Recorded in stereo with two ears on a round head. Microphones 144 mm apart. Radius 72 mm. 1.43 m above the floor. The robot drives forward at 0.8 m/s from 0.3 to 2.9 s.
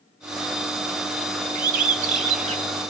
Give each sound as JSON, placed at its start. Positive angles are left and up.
{"t": 1.6, "sound": "a bird", "side_deg": -55, "distance_m": 1.5}